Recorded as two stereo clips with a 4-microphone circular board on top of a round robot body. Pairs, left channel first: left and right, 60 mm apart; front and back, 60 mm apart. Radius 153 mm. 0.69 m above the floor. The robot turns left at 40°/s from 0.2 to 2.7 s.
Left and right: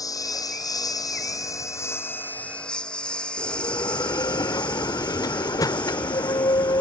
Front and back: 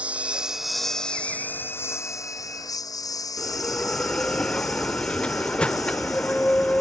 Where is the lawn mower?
110° left; by 6.8 s 20° left.